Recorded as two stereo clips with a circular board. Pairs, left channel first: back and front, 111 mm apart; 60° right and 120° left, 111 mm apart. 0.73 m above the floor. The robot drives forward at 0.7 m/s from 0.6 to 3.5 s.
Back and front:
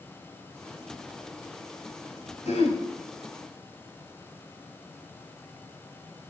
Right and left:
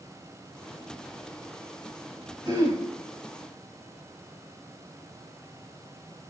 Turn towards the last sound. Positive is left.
turn(degrees=175)